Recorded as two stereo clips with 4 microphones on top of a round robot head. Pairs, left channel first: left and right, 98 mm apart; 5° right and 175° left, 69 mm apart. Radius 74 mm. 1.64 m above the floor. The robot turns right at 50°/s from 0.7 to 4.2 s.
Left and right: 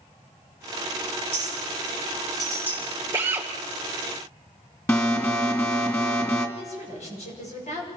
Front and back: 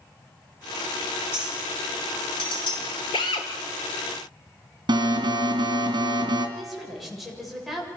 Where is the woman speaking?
85° left, 7.5 m.